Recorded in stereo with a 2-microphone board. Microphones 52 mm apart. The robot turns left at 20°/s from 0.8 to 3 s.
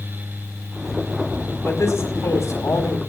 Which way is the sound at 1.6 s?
70° left (ahead or behind).